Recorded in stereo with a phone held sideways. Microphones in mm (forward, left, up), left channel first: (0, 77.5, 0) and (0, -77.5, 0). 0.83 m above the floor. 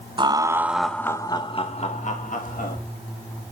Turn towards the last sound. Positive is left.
turn(degrees=60)  # may be behind; listen again after turning